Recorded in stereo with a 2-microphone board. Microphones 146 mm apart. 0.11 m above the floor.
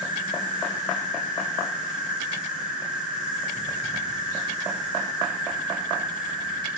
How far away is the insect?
About 1.7 m.